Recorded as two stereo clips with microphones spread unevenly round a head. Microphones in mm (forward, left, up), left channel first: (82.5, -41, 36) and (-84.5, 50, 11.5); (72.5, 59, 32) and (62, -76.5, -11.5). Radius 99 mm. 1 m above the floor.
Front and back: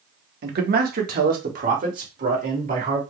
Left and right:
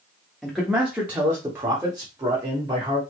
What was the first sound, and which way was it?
A man speaking, straight behind.